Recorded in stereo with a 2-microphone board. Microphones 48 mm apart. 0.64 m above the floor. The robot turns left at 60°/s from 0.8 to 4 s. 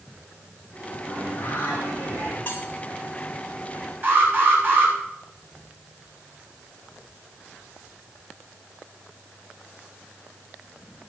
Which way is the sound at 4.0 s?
45° right (ahead or behind).